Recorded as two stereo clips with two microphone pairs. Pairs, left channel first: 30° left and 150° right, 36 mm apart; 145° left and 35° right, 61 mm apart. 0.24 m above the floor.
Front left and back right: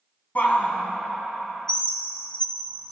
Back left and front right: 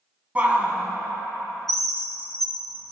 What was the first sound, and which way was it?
A shout, 25° left.